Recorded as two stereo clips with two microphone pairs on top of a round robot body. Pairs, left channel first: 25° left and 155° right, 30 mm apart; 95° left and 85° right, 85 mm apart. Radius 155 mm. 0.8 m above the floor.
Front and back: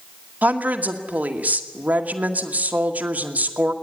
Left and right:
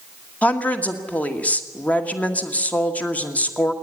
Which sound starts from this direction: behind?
A woman speaking, at 0.4 s.